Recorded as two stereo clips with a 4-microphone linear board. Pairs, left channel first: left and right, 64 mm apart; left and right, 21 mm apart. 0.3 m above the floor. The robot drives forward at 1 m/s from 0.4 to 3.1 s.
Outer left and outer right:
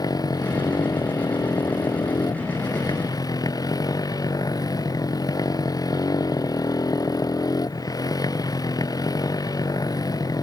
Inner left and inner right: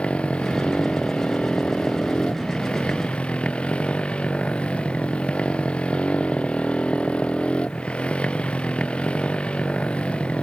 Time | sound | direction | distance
0.0 | a motorcycle | 85° left | ?